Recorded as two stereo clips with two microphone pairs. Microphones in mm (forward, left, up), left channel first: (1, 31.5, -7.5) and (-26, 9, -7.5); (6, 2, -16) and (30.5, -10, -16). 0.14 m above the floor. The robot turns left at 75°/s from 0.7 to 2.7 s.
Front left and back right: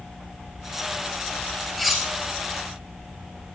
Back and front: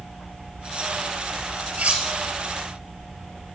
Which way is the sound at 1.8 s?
45° right.